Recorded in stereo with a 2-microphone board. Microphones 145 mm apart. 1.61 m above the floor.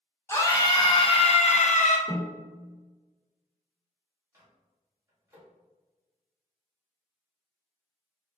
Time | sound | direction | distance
0.3 | a scream | 20° left (ahead or behind) | 1.0 m
2.1 | a snare drum | 15° left (ahead or behind) | 1.5 m
4.3 | a microwave | 20° right (ahead or behind) | 1.4 m